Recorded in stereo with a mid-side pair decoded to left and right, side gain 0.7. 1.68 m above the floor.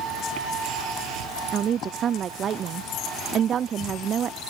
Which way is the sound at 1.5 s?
35° right.